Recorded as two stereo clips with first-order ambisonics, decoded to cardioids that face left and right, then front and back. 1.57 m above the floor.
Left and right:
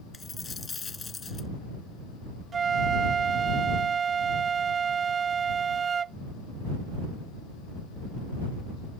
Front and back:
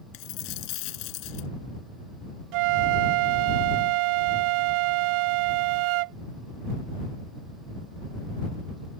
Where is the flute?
160° right.